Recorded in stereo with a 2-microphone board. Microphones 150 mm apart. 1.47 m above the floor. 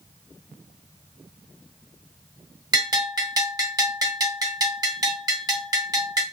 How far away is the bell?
About 1.5 m.